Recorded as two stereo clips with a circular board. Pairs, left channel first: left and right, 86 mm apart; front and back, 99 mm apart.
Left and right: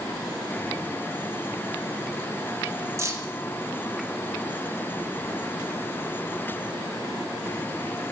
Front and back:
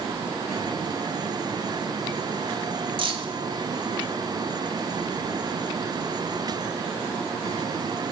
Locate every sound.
3.0 s keys jangling: 145° right, 1.2 m